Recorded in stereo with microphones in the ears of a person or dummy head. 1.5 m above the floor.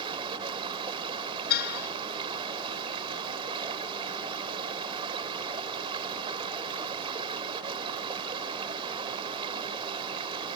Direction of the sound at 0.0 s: 25° right (ahead or behind).